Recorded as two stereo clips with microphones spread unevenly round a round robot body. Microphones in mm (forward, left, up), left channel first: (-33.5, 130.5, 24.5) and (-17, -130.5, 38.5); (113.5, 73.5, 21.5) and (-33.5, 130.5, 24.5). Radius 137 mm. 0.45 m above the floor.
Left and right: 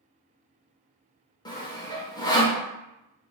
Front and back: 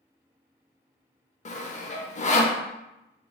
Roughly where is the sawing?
Ahead.